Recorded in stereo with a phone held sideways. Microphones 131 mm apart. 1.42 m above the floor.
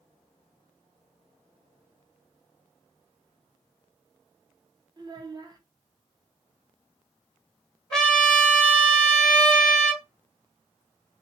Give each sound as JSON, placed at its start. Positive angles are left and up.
{"t": 5.0, "sound": "a child speaking", "side_deg": -30, "distance_m": 0.6}
{"t": 7.9, "sound": "a trumpet", "side_deg": 5, "distance_m": 1.4}